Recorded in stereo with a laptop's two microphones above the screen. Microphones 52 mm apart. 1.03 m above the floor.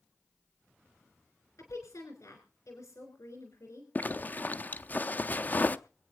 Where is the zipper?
35° left (ahead or behind), 0.5 m.